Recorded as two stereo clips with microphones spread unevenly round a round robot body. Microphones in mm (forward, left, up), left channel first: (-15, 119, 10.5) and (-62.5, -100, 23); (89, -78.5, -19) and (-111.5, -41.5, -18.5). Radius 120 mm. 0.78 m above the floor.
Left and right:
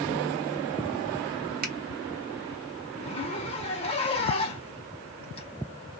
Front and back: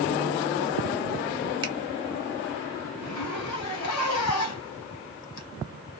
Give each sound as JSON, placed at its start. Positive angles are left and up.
{"t": 1.6, "sound": "a finger snap", "azimuth_deg": -135, "distance_m": 1.1}
{"t": 3.0, "sound": "a zipper", "azimuth_deg": 10, "distance_m": 0.6}